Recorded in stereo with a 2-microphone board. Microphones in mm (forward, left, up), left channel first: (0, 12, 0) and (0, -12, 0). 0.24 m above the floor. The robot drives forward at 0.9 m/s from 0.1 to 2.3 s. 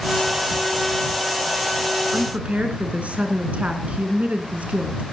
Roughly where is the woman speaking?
Right.